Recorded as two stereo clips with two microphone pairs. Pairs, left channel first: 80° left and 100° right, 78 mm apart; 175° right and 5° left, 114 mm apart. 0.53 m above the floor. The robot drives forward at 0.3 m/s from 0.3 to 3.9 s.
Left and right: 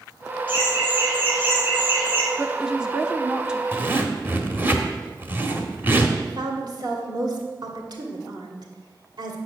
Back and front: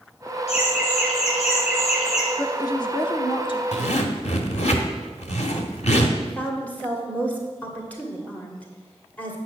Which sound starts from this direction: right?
A woman speaking, at 6.2 s.